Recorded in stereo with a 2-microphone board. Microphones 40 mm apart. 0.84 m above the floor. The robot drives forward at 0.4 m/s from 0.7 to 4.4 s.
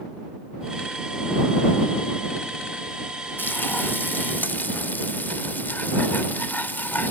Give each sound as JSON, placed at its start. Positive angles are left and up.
{"t": 3.4, "sound": "frying", "side_deg": 55, "distance_m": 0.7}